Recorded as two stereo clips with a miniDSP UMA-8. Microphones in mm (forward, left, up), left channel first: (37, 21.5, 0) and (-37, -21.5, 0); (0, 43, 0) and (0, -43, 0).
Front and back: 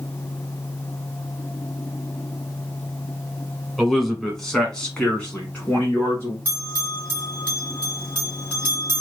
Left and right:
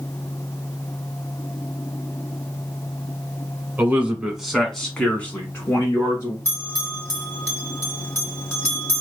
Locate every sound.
3.8 s a man speaking: 60° right, 1.2 m; by 6.3 s 90° left, 1.4 m
6.5 s a bell: 75° left, 1.9 m